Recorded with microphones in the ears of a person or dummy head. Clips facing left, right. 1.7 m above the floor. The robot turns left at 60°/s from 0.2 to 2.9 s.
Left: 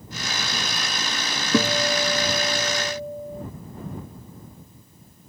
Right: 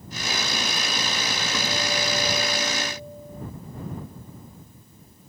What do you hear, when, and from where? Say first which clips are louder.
1.5 s a guitar: left 9 dB; 140° left; by 3.5 s 60° left